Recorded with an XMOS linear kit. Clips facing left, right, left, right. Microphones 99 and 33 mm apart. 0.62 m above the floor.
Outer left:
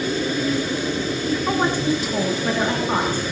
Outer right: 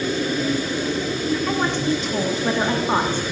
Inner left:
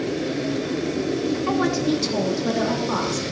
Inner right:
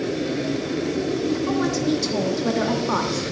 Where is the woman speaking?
20° left (ahead or behind), 1.0 m; by 3.3 s 30° right (ahead or behind), 1.2 m.